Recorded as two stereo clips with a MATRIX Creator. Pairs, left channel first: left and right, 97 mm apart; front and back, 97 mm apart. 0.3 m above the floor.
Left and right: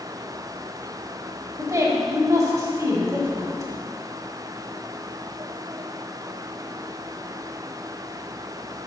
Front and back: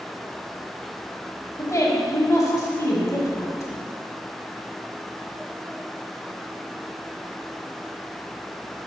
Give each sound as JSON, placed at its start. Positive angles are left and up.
{"t": 1.6, "sound": "a woman speaking", "azimuth_deg": -45, "distance_m": 1.4}